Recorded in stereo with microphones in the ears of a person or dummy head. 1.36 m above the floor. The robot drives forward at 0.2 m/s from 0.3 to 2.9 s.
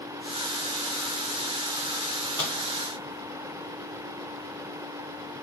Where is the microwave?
15° left (ahead or behind), 0.8 m.